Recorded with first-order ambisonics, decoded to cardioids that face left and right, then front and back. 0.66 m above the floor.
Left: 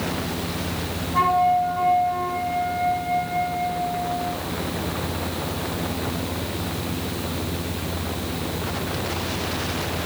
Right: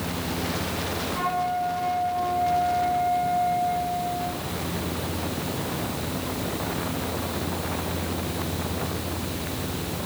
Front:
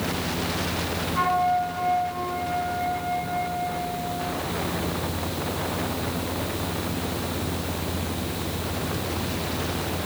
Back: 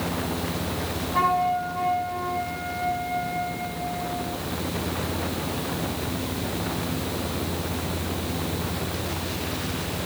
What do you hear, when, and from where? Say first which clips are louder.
1.1 s a flute: left 9 dB, even; 140° left, 4.5 m